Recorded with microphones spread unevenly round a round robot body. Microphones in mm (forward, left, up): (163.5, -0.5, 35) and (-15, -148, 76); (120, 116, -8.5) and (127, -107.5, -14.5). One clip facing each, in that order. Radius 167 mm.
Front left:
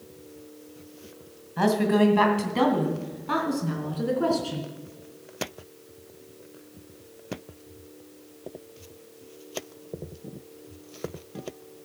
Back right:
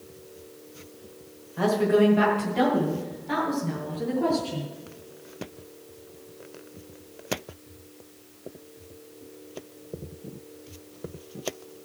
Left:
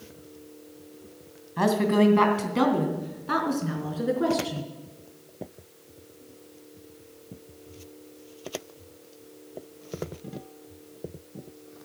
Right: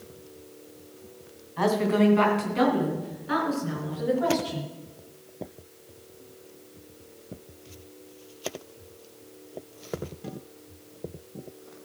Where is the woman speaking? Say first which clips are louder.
Back right 1 dB, left 1 dB; 60° left, 2 m; by 4.7 s 65° left, 4.5 m.